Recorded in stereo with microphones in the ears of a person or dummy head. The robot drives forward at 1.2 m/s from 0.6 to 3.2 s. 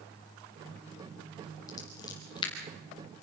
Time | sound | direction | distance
1.7 | scissors | 20° left (ahead or behind) | 4 m